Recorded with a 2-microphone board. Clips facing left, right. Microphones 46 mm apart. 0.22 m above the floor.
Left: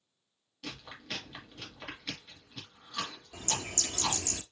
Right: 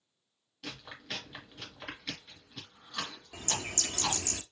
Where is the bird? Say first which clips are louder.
Even; 30° right (ahead or behind), 0.6 m.